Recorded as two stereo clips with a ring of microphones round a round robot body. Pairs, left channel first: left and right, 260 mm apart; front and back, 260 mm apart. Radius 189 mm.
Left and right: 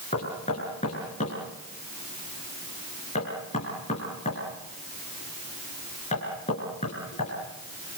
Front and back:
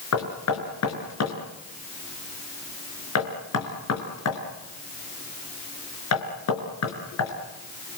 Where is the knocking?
15° left, 5 m.